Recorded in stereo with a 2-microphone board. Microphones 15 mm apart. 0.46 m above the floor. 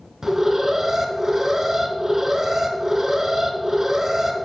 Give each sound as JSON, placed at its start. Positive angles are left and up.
{"t": 0.2, "sound": "an alarm", "side_deg": -20, "distance_m": 1.6}